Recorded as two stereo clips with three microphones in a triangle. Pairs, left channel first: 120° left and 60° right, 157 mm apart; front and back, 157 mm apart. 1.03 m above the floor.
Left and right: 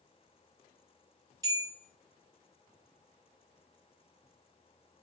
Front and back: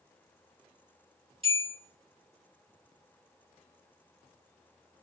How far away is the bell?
About 1.4 m.